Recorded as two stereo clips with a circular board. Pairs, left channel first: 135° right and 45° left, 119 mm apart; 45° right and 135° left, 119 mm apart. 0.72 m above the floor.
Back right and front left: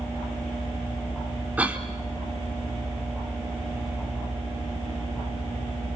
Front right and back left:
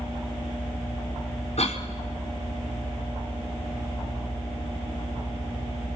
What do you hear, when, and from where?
1.6 s a cough: 30° right, 2 m